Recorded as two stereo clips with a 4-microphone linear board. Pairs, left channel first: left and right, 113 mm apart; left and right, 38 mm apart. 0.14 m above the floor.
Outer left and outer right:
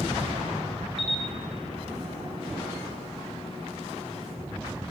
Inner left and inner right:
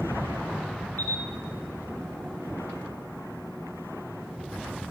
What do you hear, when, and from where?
1.0 s a camera shutter: 60° left (ahead or behind), 0.9 m